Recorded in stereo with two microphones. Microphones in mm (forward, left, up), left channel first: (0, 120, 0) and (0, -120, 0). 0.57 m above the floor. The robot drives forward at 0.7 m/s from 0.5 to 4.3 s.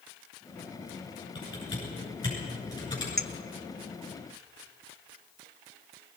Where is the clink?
40° right (ahead or behind), 0.9 m.